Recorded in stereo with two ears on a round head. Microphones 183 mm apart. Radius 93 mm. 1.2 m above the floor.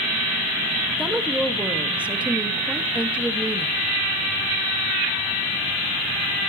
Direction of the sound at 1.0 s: 5° right (ahead or behind).